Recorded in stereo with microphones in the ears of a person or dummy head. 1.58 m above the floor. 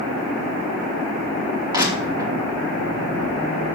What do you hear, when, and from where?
1.7 s crushing: 15° right (ahead or behind), 2.5 m